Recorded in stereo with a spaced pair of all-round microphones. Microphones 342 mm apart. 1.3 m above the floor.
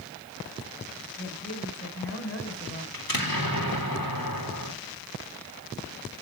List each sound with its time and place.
1.2 s a woman speaking: 40° left (ahead or behind), 7 m
2.9 s an explosion: 85° left, 3 m